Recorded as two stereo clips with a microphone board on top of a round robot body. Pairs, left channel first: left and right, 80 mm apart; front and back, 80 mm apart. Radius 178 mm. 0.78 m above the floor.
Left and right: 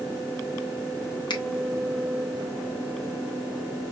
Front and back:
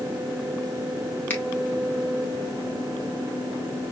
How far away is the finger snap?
About 1.2 m.